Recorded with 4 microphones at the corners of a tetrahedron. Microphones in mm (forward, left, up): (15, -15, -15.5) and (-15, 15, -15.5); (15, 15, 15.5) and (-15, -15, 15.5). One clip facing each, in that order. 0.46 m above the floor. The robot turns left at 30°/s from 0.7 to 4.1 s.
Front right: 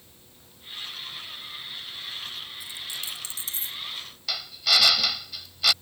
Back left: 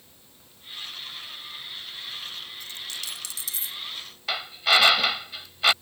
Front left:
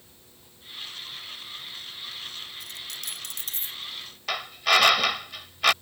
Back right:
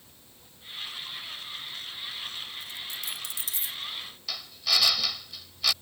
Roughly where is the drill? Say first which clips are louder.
Back left 3 dB, front left 8 dB; left.